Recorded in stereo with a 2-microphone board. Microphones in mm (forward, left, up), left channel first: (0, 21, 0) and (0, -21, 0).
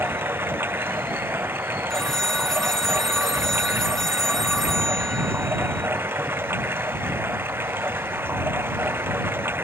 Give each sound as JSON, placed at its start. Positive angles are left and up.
{"t": 0.0, "sound": "running water", "side_deg": -70}
{"t": 1.9, "sound": "a phone ringing", "side_deg": 10}